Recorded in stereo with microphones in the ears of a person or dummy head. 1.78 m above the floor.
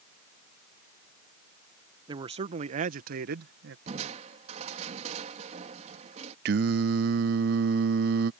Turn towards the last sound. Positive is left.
turn(degrees=-60)  # may be behind; listen again after turning